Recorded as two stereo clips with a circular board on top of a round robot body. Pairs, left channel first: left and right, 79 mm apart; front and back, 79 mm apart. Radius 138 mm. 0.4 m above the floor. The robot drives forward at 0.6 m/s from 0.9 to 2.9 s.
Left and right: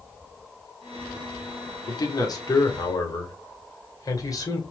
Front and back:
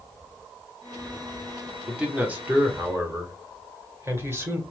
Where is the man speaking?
100° left, 1.5 m; by 4.6 s 125° left, 1.7 m.